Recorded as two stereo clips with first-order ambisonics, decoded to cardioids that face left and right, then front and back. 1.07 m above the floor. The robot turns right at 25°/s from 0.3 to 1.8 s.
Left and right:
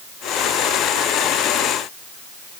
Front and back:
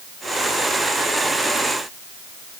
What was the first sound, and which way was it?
Only background noise.